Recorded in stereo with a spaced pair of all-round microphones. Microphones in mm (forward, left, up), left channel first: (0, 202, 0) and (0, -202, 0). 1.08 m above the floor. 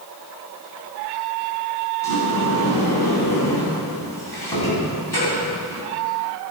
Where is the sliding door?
75° left (ahead or behind), 4 m.